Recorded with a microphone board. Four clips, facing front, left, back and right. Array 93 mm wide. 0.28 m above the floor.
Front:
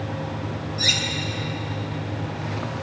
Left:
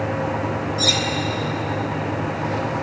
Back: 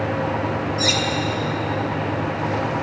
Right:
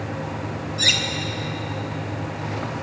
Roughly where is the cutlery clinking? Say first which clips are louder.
Even, back 3 dB; right.